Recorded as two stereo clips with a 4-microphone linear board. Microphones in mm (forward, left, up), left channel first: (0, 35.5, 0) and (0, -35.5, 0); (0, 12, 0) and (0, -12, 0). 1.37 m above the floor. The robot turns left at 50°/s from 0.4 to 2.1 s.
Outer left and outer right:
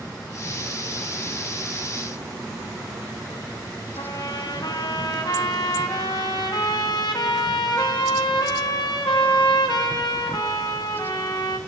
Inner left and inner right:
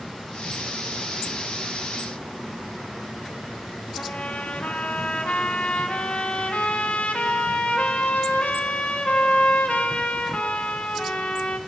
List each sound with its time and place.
4.0 s a trumpet: 85° left, 2 m